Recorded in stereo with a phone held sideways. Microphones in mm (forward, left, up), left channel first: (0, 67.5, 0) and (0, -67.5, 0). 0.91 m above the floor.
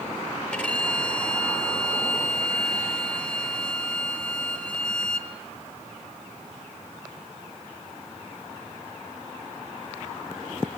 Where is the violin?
5° left (ahead or behind), 4 m.